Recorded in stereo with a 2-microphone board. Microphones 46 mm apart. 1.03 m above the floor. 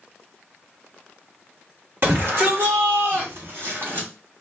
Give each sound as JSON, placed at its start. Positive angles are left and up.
{"t": 2.0, "sound": "a shout", "side_deg": -50, "distance_m": 1.9}